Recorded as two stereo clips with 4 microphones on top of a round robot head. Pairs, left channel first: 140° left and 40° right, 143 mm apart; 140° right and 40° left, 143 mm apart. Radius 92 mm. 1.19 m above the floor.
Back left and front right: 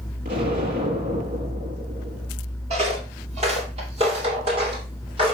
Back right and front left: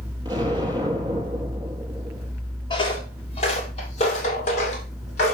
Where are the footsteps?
85° right, 1.6 m; by 5.3 s 95° right, 3.5 m.